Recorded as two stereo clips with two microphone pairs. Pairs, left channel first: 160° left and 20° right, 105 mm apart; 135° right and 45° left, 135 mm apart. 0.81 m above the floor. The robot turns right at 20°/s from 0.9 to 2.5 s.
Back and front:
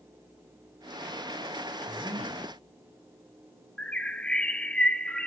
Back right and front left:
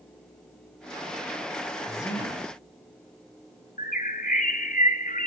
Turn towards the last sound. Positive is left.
turn(degrees=-120)